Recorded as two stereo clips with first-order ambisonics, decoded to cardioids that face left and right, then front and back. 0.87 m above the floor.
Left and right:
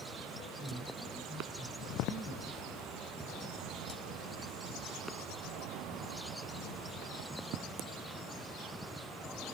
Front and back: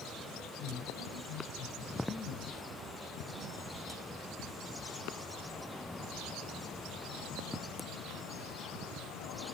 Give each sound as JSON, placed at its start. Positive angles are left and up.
{"t": 0.6, "sound": "a woman speaking", "azimuth_deg": -15, "distance_m": 5.5}